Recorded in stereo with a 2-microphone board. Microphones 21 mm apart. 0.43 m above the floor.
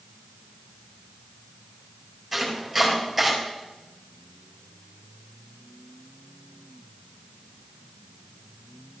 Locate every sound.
2.3 s chopping: centre (ahead or behind), 5 m